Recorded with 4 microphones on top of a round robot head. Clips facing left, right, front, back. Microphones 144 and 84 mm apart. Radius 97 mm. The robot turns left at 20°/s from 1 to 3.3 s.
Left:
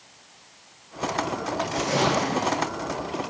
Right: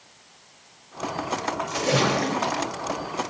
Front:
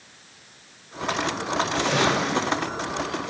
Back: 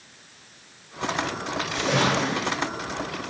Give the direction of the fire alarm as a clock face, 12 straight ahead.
I don't hear a fire alarm.